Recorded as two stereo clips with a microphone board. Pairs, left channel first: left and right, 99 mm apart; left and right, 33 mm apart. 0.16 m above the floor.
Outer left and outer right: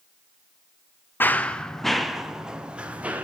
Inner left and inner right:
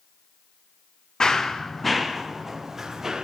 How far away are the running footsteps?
About 1.3 m.